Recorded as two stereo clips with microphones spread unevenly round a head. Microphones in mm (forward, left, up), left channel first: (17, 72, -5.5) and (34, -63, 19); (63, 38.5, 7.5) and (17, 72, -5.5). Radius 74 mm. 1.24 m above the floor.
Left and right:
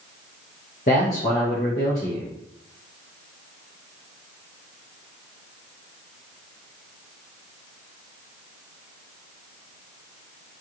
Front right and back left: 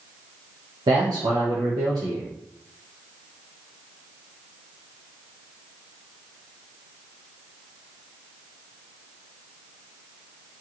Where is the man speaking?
145° left, 0.9 m.